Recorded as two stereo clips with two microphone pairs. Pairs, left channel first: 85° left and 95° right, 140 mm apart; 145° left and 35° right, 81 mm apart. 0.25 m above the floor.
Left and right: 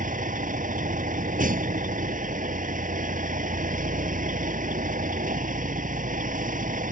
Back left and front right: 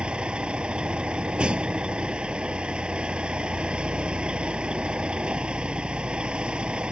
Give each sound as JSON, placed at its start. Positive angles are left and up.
{"t": 0.0, "sound": "a vehicle", "azimuth_deg": -110}